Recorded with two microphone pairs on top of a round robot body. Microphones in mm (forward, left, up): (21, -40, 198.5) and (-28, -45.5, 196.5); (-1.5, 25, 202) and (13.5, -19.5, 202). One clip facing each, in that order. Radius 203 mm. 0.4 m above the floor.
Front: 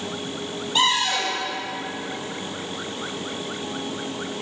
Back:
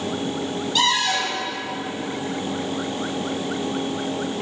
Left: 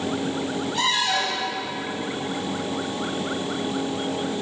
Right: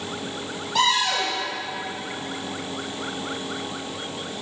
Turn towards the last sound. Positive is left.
turn(degrees=-65)